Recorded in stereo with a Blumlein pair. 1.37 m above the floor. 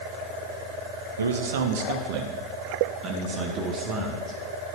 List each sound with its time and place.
1.2 s a man speaking: 70° right, 1.2 m; by 4.4 s 20° right, 2.5 m